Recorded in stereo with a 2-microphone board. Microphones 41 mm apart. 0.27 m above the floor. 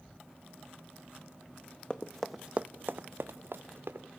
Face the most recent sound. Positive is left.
turn(degrees=-75)  # may be behind; listen again after turning